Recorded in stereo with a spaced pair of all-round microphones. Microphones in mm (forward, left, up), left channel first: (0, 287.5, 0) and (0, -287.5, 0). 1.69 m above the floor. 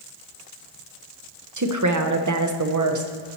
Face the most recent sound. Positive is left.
turn(degrees=-30)  # may be behind; listen again after turning